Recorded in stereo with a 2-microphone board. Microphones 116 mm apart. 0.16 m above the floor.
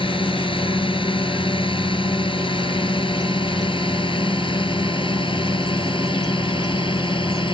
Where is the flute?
No flute in this recording.